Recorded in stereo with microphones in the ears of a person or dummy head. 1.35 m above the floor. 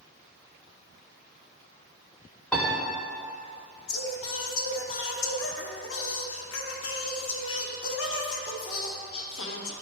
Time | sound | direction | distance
2.5 | a piano | 5° left (ahead or behind) | 1.5 m
3.9 | singing | 65° left (ahead or behind) | 1.0 m